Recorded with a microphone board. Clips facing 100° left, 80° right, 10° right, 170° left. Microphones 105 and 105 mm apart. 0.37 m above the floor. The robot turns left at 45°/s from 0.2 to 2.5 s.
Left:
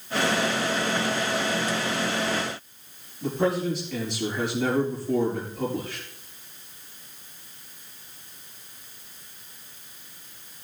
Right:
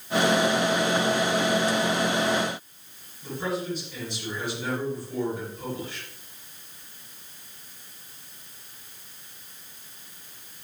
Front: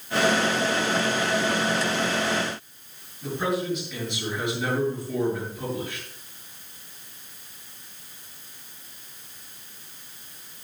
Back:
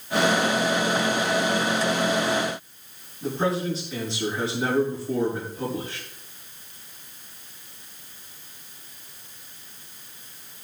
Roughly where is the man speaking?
Behind left.